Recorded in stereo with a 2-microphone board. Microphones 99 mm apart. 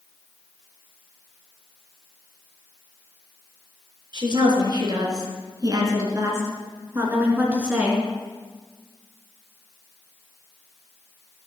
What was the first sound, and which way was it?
A woman speaking, 50° right (ahead or behind).